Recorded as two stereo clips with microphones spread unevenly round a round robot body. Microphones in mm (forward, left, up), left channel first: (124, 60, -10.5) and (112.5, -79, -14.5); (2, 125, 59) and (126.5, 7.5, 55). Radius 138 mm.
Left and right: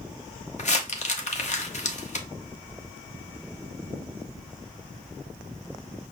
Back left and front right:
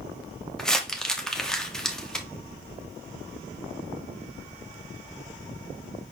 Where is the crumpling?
50° left, 1.1 m.